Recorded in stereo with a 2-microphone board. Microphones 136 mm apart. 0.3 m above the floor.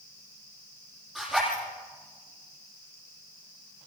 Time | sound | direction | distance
1.1 | a zipper | 5° right (ahead or behind) | 10 m